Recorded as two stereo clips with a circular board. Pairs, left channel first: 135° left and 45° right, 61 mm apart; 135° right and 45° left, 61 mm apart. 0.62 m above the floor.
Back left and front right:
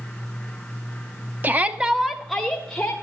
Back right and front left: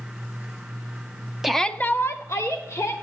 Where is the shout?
35° right, 0.8 m; by 2.9 s 145° right, 2 m.